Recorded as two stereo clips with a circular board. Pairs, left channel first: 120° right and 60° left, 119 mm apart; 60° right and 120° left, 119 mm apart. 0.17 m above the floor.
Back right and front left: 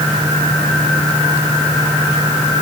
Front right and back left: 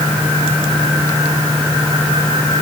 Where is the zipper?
I don't hear a zipper.